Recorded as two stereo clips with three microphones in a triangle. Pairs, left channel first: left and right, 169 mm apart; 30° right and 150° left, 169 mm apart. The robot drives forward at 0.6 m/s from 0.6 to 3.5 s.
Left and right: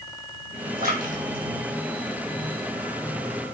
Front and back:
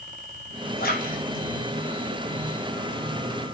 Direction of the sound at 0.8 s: 60° right.